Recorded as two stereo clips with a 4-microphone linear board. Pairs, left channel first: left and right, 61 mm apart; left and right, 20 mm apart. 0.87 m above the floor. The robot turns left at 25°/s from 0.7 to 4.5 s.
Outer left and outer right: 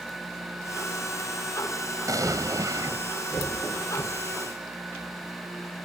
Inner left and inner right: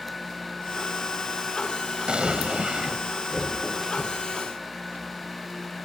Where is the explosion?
70° right (ahead or behind); by 3.0 s 85° right.